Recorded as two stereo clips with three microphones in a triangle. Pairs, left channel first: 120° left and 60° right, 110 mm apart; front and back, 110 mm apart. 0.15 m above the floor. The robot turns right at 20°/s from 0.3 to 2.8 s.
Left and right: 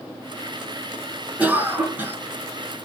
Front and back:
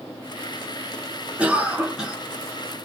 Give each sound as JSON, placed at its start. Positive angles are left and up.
{"t": 1.4, "sound": "a cough", "azimuth_deg": -115, "distance_m": 1.2}